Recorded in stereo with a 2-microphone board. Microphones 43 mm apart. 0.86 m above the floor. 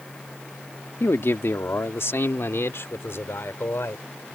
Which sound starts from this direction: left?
A man speaking, at 1.0 s.